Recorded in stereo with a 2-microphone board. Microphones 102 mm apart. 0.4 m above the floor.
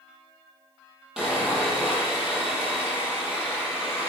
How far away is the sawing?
About 7 m.